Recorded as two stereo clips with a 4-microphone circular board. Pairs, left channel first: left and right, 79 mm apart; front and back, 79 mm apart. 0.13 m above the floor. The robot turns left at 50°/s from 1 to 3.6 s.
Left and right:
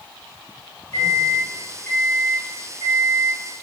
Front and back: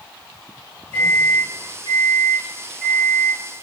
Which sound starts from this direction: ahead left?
A microwave, at 0.9 s.